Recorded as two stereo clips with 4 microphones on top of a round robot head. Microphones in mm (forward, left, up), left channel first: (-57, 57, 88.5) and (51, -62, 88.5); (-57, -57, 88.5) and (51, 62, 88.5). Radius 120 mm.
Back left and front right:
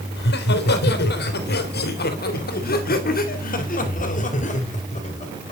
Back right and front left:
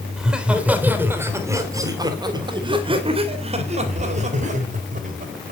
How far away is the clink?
No clink in this recording.